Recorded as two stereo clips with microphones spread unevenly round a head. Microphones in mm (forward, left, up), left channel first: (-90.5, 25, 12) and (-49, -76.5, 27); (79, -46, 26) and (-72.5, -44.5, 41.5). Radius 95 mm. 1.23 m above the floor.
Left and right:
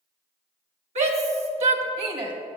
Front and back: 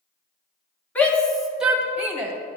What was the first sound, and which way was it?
A shout, 80° right.